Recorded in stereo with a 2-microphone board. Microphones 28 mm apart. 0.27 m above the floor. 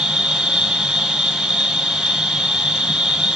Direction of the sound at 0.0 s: 25° right (ahead or behind).